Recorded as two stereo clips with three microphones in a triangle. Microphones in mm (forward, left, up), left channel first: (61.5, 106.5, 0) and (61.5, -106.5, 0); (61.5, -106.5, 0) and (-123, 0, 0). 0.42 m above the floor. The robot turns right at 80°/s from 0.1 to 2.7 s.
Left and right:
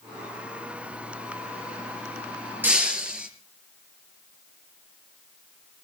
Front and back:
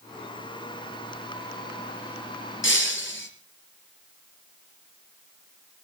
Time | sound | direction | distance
2.6 | breaking glass | 10° right | 4 m